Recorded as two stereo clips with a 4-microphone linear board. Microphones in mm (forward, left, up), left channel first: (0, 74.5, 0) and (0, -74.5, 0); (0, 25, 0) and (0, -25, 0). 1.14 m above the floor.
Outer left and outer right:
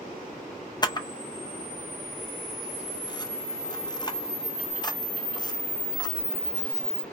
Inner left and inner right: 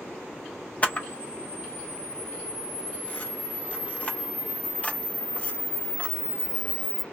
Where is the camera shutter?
30° left (ahead or behind), 0.5 m.